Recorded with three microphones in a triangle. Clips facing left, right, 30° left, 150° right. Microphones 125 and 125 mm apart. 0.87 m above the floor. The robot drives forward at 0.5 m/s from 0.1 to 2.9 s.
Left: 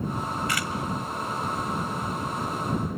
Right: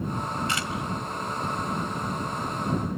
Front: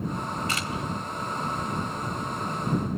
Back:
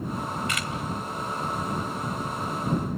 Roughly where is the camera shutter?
Ahead right.